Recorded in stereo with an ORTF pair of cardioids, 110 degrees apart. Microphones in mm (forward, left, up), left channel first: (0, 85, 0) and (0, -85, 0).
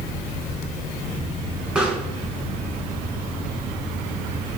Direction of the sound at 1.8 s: 5° right.